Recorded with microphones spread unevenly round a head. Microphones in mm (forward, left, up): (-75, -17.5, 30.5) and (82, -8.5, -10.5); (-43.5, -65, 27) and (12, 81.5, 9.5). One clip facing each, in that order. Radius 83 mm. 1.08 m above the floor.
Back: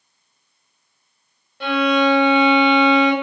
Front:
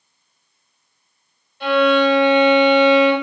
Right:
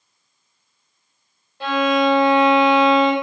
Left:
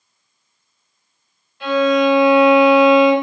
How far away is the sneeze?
No sneeze in this recording.